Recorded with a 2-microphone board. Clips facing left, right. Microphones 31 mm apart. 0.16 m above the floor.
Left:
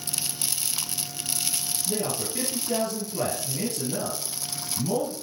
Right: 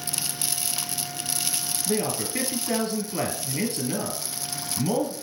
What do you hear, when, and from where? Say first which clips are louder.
1.9 s a man speaking: right 3 dB; 55° right (ahead or behind), 2.5 m